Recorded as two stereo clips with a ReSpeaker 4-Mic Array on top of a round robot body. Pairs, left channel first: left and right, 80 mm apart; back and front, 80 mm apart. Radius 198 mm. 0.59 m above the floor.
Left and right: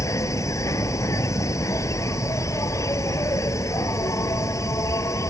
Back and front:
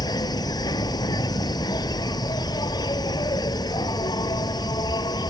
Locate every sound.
0.0 s an insect: 145° left